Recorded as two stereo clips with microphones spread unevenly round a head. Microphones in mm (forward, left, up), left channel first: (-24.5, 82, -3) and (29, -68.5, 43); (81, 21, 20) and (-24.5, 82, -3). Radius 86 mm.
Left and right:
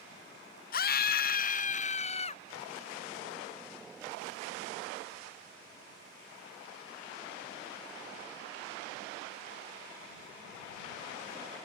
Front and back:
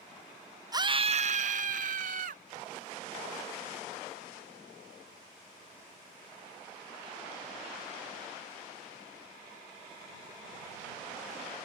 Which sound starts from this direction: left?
A scream, at 0.7 s.